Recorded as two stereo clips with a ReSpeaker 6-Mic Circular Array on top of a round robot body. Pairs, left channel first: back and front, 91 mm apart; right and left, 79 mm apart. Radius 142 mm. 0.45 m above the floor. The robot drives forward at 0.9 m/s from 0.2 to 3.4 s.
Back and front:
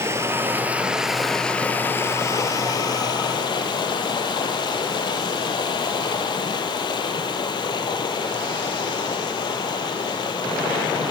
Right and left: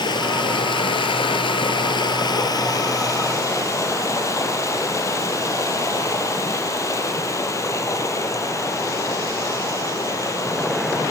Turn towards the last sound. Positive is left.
turn(degrees=-140)